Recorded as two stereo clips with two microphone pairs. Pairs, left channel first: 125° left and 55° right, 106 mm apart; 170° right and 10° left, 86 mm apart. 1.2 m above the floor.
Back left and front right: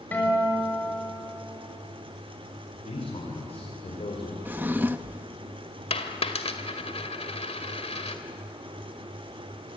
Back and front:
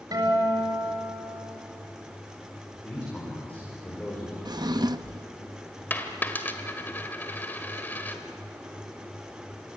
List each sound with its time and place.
0.1 s a guitar: 50° left, 5.5 m
2.7 s a man speaking: 120° left, 4.5 m
4.5 s a drawer: 15° left, 0.7 m
5.9 s a dropped coin: 125° left, 1.9 m